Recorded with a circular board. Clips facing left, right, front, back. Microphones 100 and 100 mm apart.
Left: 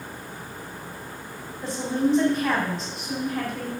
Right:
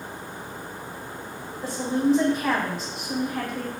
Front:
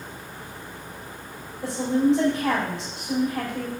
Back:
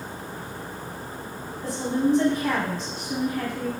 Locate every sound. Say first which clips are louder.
1.6 s a woman speaking: right 1 dB, front 3 dB; 10° right, 4 m